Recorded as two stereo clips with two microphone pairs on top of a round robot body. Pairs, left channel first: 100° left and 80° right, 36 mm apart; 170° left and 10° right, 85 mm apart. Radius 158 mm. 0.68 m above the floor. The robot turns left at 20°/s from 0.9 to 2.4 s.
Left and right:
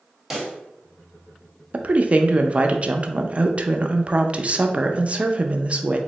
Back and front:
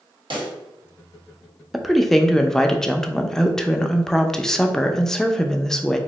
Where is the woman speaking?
110° right, 0.5 m; by 6.0 s 125° right, 0.5 m.